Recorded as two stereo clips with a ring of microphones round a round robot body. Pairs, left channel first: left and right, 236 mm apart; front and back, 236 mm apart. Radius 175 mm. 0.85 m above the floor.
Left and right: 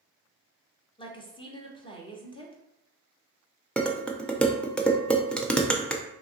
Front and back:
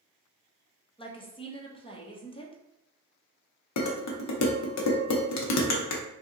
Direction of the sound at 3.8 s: 5° left.